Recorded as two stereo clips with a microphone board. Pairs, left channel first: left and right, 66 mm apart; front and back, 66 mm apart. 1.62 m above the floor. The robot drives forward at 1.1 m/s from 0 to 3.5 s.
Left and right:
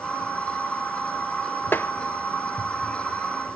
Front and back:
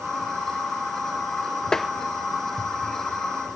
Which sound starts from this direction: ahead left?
Tapping, at 1.7 s.